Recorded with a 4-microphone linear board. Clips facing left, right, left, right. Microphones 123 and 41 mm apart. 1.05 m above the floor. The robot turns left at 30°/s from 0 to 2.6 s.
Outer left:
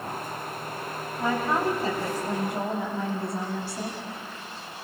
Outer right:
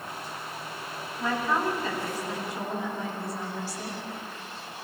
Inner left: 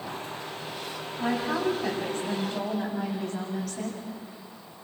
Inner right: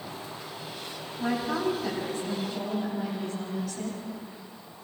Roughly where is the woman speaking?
Behind.